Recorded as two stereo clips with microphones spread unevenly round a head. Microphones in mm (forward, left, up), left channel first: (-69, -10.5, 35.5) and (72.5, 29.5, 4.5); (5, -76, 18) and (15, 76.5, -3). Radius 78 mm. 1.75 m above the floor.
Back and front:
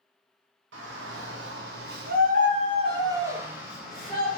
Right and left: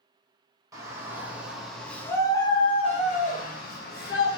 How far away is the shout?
About 1.4 m.